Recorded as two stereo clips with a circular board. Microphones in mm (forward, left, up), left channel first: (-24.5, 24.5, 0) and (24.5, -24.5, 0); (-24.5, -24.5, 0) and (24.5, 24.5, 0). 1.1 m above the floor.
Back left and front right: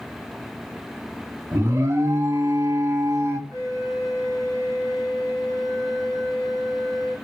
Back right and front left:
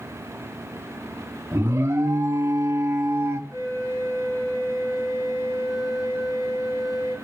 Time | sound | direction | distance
1.5 | an alarm | 5° right | 1.2 m
3.5 | a flute | 80° right | 6 m